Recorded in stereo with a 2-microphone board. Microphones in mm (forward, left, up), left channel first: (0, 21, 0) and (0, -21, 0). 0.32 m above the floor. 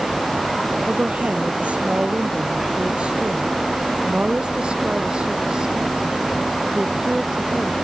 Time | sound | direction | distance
0.9 | a woman speaking | 30° right (ahead or behind) | ?